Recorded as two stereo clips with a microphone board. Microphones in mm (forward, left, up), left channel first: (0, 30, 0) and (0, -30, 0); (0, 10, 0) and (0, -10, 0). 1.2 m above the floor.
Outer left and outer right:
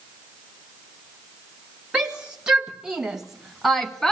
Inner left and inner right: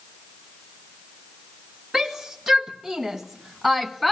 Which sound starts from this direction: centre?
A shout, at 1.9 s.